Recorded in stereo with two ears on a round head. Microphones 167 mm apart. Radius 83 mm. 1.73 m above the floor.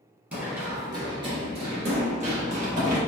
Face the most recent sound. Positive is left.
turn(degrees=-45)  # may be behind; listen again after turning